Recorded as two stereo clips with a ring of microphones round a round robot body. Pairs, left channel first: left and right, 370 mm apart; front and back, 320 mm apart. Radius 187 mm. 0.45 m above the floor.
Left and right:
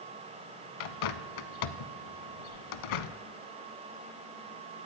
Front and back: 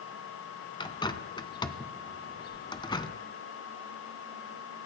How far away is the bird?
About 0.9 m.